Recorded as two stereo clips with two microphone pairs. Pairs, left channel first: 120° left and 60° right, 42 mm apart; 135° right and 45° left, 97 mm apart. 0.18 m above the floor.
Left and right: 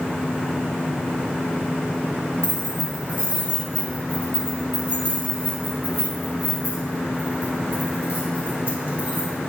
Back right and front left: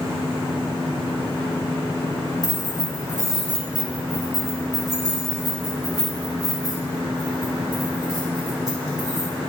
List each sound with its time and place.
2.4 s keys jangling: 5° left, 1.7 m; by 9.3 s 5° right, 5.5 m